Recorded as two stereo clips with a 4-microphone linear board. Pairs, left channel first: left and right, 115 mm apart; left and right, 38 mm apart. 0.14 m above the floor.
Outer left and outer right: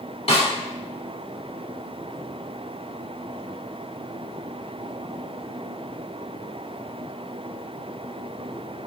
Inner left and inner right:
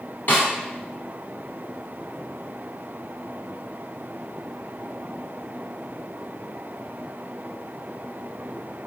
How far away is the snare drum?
About 1.7 m.